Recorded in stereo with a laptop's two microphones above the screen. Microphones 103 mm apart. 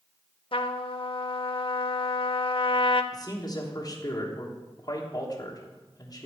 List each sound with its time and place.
0.5 s a trumpet: 60° left (ahead or behind), 0.5 m
3.1 s a man speaking: 40° left (ahead or behind), 1.2 m